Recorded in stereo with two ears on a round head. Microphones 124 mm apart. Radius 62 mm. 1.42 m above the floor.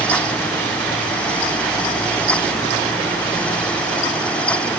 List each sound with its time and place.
Only background noise.